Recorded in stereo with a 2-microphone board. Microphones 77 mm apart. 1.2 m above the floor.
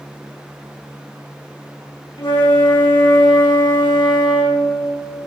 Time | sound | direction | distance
2.2 | a flute | 70° left (ahead or behind) | 1.6 m